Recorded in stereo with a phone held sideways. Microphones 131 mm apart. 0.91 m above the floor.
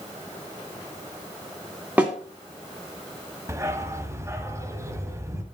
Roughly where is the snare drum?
Centre.